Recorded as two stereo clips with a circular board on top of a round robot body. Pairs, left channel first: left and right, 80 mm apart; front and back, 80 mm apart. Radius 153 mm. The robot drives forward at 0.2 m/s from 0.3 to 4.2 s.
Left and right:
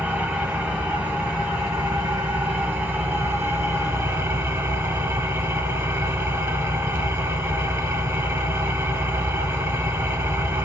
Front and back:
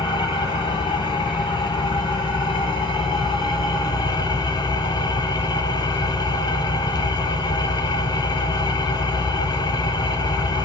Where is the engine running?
20° right, 1.8 m; by 10.7 s 35° right, 1.1 m.